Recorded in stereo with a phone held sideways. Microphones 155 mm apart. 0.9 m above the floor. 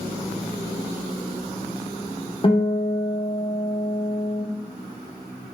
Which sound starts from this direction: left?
A guitar, at 2.4 s.